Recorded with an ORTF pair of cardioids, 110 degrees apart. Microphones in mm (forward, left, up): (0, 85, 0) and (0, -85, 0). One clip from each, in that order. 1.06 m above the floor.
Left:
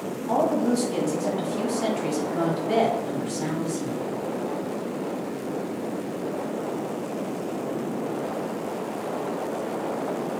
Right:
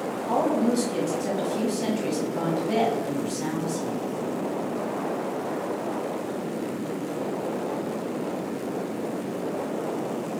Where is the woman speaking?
10° left, 1.0 m.